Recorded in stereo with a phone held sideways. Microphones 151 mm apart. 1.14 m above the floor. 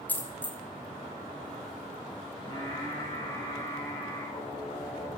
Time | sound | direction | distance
0.1 | a dropped coin | 10° left (ahead or behind) | 0.9 m
2.4 | singing | 35° left (ahead or behind) | 3 m